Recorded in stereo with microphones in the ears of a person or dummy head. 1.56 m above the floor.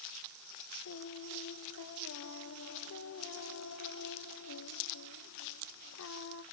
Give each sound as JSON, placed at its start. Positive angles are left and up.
{"t": 0.8, "sound": "singing", "side_deg": 80, "distance_m": 1.5}